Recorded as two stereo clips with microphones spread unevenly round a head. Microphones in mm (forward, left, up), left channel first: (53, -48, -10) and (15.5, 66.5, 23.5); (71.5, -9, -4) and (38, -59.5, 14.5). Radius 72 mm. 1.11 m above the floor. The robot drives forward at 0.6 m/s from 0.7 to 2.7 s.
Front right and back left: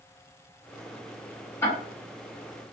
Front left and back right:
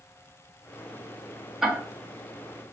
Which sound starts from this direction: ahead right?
Ticking, at 1.6 s.